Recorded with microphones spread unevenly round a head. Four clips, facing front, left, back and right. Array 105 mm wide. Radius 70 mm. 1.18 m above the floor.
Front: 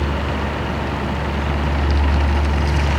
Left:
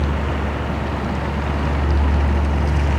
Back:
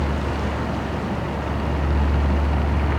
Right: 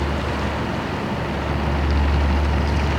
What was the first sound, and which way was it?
Only background noise.